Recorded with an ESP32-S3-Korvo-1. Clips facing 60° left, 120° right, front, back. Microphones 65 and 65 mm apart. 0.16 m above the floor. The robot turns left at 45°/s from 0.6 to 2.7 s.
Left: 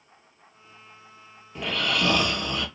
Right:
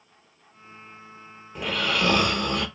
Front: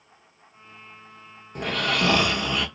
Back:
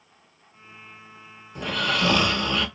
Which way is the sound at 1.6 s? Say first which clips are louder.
Right 1 dB, even; 35° right.